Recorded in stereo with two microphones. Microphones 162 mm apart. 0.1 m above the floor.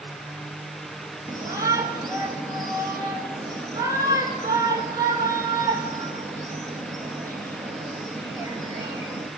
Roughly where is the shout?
Centre.